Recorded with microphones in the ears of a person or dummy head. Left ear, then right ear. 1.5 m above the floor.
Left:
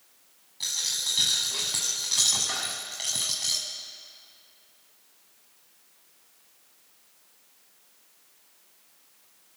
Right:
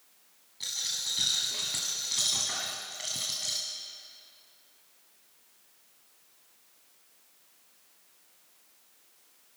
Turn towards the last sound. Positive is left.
turn(degrees=5)  # may be behind; listen again after turning